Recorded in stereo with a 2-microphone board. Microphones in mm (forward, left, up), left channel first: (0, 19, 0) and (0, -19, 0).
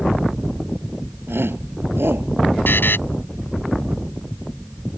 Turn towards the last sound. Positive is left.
turn(degrees=65)  # may be behind; listen again after turning